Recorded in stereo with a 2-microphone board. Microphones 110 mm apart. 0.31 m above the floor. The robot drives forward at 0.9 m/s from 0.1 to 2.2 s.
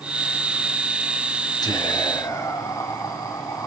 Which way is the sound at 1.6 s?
40° left (ahead or behind).